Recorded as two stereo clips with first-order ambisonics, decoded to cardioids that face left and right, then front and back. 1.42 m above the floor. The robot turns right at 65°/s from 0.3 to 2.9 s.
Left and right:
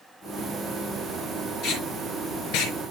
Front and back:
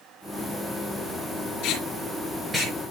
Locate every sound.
1.6 s tape being pulled: 35° left, 4 m; by 2.8 s 105° left, 4 m